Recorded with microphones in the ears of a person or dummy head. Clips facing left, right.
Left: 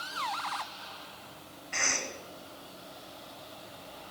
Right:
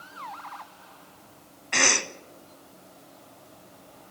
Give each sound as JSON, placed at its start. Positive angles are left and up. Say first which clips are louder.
{"t": 1.7, "sound": "a cough", "louder": "right 9 dB", "side_deg": -75, "distance_m": 1.1}